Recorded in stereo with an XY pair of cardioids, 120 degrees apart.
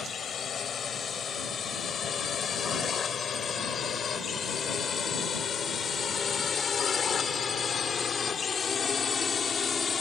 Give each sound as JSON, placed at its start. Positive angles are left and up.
{"t": 0.0, "sound": "a drone", "azimuth_deg": 40}